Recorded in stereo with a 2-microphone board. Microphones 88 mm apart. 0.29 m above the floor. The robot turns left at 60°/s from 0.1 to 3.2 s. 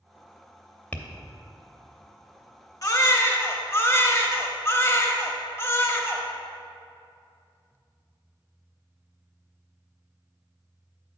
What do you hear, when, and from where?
0.9 s tapping: 20° left (ahead or behind), 0.6 m
2.8 s a baby crying: 40° left (ahead or behind), 0.8 m; by 6.2 s 30° left (ahead or behind), 0.8 m